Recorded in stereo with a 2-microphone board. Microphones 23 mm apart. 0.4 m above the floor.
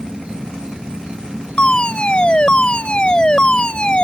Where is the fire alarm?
40° left (ahead or behind).